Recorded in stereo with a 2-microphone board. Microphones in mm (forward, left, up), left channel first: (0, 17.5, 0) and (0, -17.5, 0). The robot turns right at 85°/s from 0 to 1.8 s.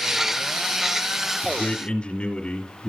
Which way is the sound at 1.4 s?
95° left.